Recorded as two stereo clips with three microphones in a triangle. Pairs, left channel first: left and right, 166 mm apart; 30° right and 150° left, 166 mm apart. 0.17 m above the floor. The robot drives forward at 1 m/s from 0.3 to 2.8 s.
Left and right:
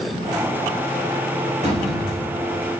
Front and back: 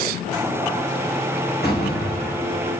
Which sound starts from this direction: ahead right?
A door slam, at 1.6 s.